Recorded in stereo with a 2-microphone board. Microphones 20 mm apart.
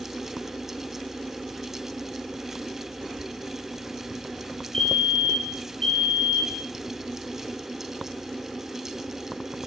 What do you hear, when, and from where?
4.7 s a fire alarm: 35° left (ahead or behind), 4.5 m